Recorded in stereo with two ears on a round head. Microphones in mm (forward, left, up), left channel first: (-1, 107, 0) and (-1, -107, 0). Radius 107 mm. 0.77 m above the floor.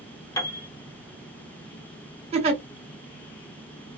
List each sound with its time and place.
0.4 s a piano: 15° left (ahead or behind), 1.1 m
2.3 s a giggle: 30° right (ahead or behind), 1.3 m